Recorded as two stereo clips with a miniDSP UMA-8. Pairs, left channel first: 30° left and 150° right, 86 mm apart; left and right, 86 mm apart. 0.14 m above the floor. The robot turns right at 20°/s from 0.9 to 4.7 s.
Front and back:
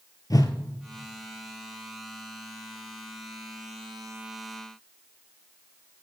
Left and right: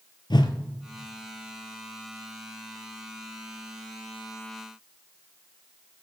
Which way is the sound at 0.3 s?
70° left.